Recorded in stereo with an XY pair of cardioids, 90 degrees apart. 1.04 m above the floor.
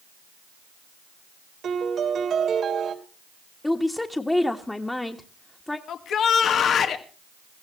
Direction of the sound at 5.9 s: 70° left.